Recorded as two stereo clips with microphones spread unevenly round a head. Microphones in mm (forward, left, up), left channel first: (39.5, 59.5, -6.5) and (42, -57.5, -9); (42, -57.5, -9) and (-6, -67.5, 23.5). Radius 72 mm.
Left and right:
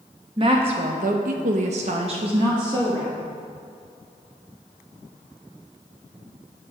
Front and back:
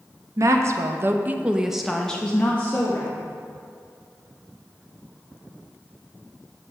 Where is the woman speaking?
150° right, 1.1 m; by 3.1 s 35° right, 1.6 m.